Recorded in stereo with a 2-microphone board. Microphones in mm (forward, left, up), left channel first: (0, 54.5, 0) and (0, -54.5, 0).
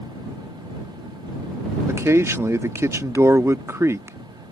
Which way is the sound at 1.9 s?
25° right (ahead or behind).